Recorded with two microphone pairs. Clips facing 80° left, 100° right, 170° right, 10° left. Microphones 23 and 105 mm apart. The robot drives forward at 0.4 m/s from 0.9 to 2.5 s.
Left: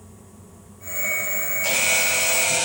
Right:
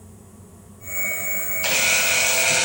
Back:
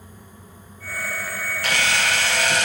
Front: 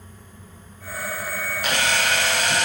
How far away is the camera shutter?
About 5.5 m.